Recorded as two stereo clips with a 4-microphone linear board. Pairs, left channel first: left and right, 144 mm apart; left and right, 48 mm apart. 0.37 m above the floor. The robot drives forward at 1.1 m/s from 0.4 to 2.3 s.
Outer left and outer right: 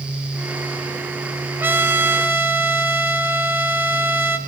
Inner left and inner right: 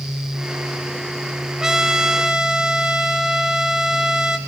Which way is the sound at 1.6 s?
15° right (ahead or behind).